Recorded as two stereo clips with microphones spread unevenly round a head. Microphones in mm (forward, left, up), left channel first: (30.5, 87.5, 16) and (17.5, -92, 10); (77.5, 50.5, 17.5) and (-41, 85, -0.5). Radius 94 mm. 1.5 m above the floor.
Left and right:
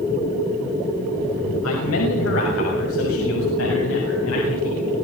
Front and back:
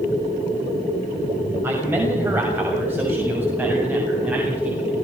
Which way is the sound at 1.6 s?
90° left.